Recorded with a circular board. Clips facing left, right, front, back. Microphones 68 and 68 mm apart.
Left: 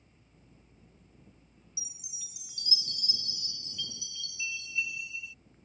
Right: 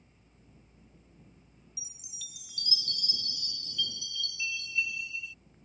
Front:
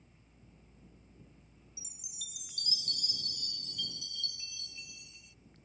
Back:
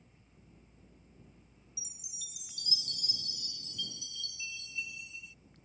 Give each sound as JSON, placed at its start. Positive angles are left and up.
{"t": 1.8, "sound": "a chime", "azimuth_deg": 25}